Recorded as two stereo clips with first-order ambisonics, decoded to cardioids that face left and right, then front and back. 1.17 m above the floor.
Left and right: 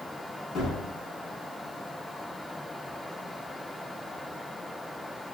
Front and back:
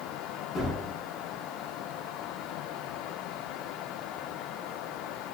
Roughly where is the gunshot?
Ahead left.